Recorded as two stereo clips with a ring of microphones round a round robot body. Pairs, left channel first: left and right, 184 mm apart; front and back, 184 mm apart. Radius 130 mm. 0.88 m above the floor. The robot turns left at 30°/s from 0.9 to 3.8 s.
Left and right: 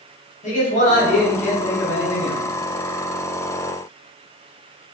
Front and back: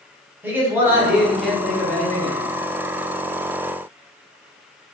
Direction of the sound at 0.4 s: 105° left.